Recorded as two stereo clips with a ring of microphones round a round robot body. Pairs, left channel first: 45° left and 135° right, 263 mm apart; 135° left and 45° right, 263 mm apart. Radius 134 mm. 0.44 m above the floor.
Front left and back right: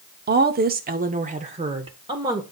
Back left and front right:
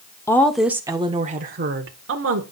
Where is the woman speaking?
150° right, 0.9 m; by 2.4 s 60° right, 1.2 m.